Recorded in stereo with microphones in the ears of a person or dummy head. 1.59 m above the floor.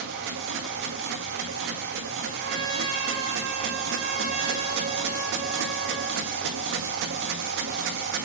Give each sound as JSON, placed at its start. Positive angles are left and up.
{"t": 0.0, "sound": "a machine running", "side_deg": -60, "distance_m": 1.6}
{"t": 2.4, "sound": "a trumpet", "side_deg": -80, "distance_m": 3.0}